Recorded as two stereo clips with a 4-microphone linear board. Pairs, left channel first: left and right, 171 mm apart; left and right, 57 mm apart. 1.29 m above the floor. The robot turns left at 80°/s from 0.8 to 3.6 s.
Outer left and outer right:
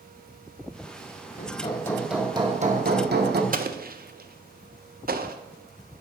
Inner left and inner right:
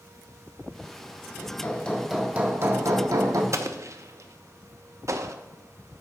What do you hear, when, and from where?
1.4 s hammering: 55° left, 0.9 m; by 3.4 s 110° right, 0.9 m
3.5 s an explosion: 50° right (ahead or behind), 0.5 m; by 5.4 s 55° right (ahead or behind), 0.5 m